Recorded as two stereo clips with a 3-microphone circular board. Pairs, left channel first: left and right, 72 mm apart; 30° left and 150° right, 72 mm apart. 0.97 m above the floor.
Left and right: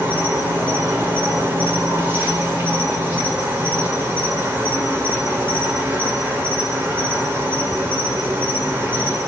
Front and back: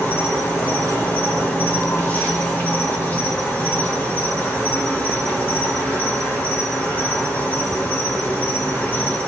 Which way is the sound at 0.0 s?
30° right.